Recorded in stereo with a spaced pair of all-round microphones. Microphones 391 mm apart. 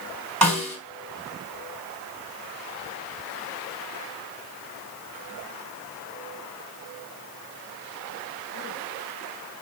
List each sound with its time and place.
0.4 s a snare drum: 65° right (ahead or behind), 2.5 m